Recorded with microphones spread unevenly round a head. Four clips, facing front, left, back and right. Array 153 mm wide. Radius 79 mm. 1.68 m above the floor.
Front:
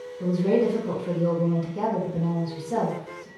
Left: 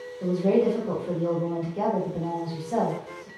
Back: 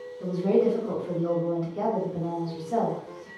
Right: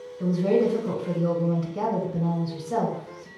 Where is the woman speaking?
70° right, 1.3 m.